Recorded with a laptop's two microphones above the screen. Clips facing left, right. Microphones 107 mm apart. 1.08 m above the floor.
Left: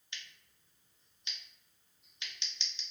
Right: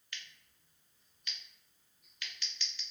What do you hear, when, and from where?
0.1 s scissors: 20° left (ahead or behind), 0.7 m